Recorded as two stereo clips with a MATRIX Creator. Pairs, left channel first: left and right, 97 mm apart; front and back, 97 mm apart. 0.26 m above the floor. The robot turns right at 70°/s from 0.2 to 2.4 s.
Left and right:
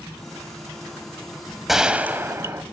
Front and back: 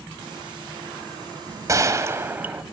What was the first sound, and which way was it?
A gunshot, 175° right.